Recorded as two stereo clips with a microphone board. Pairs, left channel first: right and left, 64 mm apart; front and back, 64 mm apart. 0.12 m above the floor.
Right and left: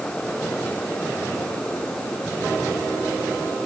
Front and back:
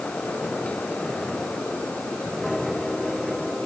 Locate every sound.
Only background noise.